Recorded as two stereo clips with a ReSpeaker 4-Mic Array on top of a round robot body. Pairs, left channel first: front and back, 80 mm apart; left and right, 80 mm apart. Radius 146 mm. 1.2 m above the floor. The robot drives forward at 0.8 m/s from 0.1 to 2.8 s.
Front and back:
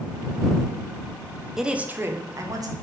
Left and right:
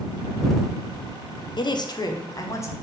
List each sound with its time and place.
1.6 s a woman speaking: 95° left, 0.9 m; by 2.7 s 145° left, 1.4 m